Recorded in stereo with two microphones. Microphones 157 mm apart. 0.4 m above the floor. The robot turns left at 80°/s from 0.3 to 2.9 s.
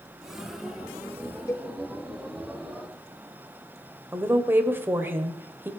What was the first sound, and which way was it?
A cowbell, 20° left (ahead or behind).